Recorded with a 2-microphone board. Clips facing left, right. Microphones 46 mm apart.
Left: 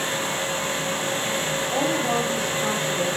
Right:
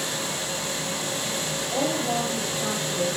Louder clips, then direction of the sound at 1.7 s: Left 2 dB; 70° left (ahead or behind).